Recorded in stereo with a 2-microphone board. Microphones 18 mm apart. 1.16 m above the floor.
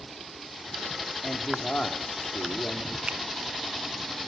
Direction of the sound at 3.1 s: 65° right (ahead or behind).